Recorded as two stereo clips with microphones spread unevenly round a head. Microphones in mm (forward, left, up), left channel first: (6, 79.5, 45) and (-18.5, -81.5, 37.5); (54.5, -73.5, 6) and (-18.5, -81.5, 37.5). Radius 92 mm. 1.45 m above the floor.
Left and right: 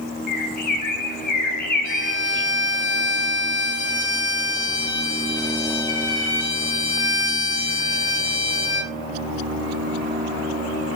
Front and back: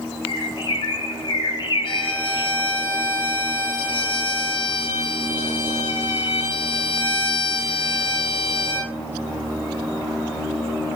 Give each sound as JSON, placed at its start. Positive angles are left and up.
{"t": 0.3, "sound": "a bird", "azimuth_deg": 40, "distance_m": 2.5}
{"t": 1.8, "sound": "a violin", "azimuth_deg": 65, "distance_m": 5.0}